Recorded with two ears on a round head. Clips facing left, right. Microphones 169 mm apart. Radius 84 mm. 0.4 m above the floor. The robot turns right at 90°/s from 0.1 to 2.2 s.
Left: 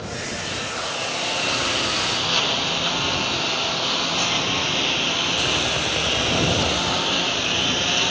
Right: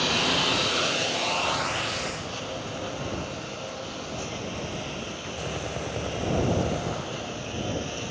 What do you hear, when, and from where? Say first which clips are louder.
0.0 s a lawn mower: right 4 dB; 100° right; by 8.1 s 90° left